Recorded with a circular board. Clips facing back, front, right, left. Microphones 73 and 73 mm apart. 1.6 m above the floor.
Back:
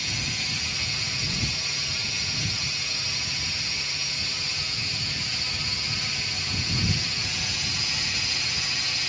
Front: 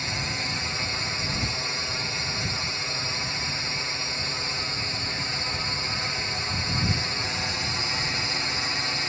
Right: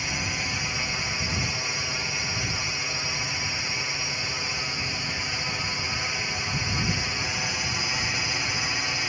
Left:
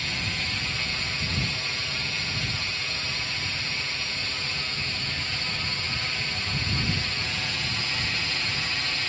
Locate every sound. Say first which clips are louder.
0.0 s a drone: front 3 dB, right 1 dB; 25° right